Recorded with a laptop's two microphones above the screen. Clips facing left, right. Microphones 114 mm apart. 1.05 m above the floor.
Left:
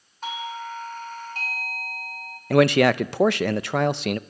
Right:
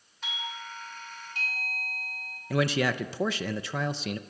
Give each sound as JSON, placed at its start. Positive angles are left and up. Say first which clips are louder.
{"t": 0.2, "sound": "a doorbell", "louder": "left 8 dB", "side_deg": 45, "distance_m": 3.0}
{"t": 2.5, "sound": "a man speaking", "louder": "left 10 dB", "side_deg": 65, "distance_m": 0.6}